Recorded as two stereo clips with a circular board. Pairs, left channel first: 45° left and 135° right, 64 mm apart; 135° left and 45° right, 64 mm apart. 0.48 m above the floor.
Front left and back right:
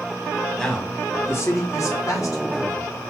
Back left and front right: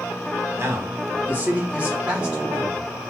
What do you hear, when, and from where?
0.6 s a man speaking: 30° right, 0.9 m; by 3.0 s 30° left, 2 m